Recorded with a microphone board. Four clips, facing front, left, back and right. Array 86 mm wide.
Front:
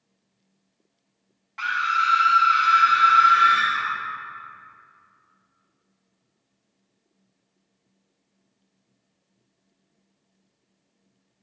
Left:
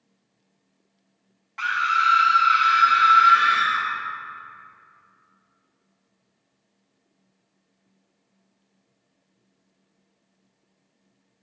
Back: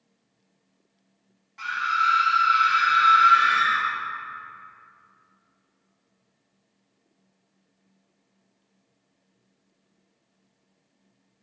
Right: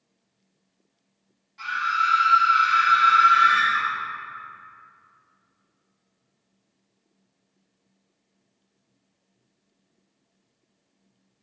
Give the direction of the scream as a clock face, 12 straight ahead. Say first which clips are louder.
Left 3 dB, front 1 dB; 10 o'clock.